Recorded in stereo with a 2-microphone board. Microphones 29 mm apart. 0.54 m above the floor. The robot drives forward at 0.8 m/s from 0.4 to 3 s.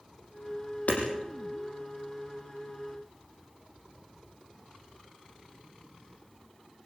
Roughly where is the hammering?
Left.